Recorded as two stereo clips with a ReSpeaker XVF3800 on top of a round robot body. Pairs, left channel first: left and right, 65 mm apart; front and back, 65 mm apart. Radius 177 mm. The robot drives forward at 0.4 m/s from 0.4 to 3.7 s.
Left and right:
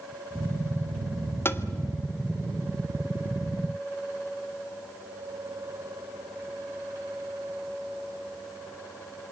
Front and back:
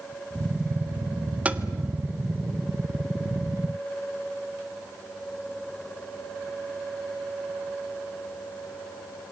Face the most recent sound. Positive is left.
turn(degrees=150)